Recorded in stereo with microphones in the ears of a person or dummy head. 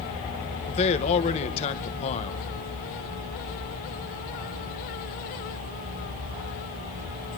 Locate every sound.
0.7 s a man speaking: 35° left (ahead or behind), 1.3 m